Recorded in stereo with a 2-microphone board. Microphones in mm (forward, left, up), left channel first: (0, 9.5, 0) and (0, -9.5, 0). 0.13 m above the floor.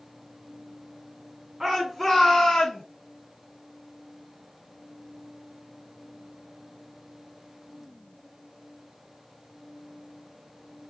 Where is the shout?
20° right (ahead or behind), 1.5 m; by 2.8 s 30° left (ahead or behind), 1.7 m.